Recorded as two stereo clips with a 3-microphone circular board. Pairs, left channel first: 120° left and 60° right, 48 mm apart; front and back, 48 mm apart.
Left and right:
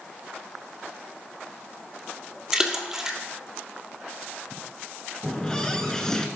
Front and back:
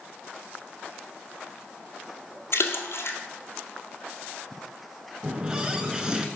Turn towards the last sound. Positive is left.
turn(degrees=155)